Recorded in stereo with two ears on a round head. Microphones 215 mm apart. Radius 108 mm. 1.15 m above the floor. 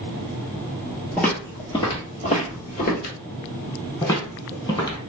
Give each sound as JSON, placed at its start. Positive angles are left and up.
{"t": 1.2, "sound": "footsteps", "side_deg": 5, "distance_m": 1.3}
{"t": 4.0, "sound": "footsteps", "side_deg": 15, "distance_m": 1.4}